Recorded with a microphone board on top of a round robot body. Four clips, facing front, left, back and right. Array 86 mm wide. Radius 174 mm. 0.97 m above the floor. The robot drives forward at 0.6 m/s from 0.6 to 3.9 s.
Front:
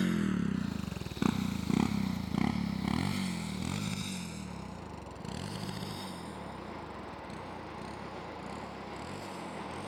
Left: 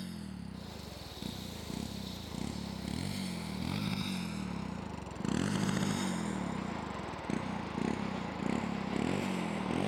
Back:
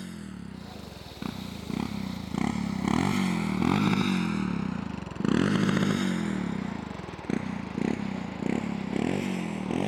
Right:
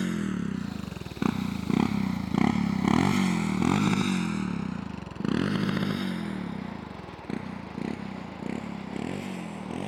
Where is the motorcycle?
55° right; by 9.9 s straight behind.